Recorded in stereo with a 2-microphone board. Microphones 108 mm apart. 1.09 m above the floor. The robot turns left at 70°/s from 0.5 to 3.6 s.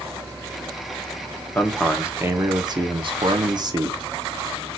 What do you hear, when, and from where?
1.6 s a man speaking: 20° left, 1.1 m; by 4.0 s 120° right, 1.1 m